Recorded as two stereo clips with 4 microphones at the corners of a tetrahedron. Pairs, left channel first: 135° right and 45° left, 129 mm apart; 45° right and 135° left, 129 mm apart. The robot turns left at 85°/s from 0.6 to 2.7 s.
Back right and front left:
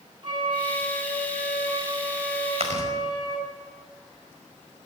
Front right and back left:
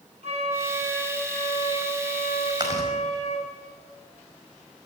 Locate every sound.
0.2 s a flute: 100° left, 7.5 m; by 3.5 s 80° right, 7.5 m
2.6 s chewing: 80° left, 5.5 m; by 2.9 s 70° left, 5.5 m